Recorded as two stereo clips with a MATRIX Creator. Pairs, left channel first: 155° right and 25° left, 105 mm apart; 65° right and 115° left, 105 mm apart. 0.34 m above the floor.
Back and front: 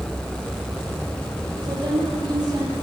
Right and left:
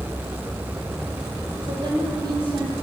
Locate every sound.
1.6 s a woman speaking: 65° left, 9 m